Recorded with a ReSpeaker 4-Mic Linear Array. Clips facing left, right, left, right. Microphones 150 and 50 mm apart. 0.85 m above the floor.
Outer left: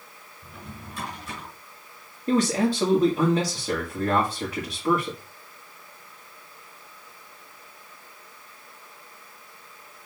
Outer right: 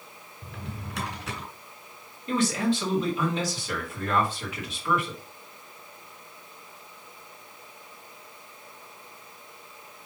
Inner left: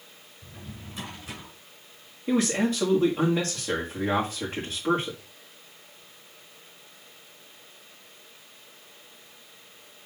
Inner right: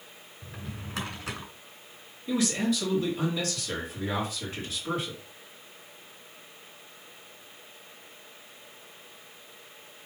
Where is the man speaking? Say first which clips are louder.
Outer left 3 dB, inner left 3 dB; 50° left (ahead or behind), 2 m.